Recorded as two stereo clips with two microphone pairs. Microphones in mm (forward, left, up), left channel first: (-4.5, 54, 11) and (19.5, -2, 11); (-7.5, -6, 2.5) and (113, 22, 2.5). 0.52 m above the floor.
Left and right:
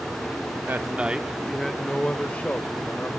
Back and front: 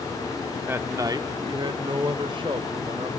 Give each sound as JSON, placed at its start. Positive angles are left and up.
{"t": 0.7, "sound": "a man speaking", "azimuth_deg": -45, "distance_m": 1.4}